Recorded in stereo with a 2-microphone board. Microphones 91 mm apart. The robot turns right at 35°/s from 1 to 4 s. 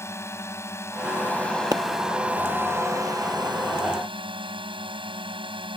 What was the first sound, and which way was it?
A drone, 150° left.